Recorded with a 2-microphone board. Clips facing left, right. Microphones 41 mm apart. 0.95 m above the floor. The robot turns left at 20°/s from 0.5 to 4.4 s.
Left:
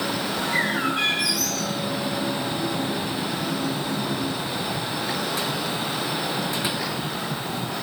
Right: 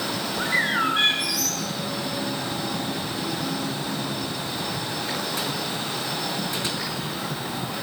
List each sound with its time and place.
0.4 s a bird: 35° right (ahead or behind), 8.5 m; by 1.7 s 55° right (ahead or behind), 8.5 m